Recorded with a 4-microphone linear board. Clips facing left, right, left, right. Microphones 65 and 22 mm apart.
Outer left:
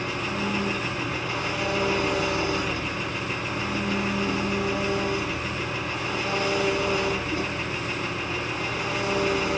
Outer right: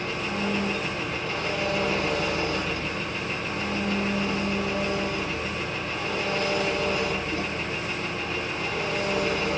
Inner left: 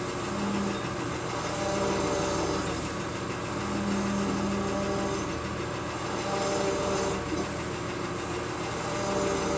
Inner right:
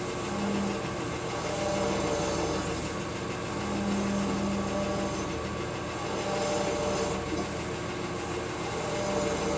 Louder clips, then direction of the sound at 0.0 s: Even, even; 15° left (ahead or behind).